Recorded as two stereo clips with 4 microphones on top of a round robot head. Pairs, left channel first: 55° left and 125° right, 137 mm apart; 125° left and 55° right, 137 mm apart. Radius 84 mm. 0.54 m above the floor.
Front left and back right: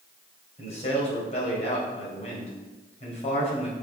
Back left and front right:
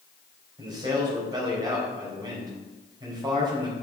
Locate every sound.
0.6 s a man speaking: 10° left, 4 m